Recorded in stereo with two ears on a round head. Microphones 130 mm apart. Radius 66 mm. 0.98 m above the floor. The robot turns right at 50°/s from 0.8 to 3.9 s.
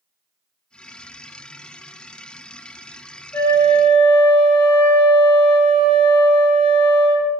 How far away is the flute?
About 1.8 m.